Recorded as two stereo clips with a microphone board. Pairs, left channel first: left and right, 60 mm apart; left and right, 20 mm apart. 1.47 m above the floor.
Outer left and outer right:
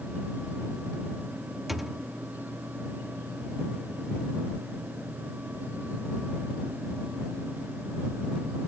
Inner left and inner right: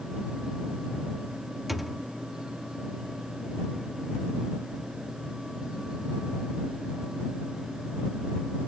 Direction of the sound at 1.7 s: Centre (ahead or behind).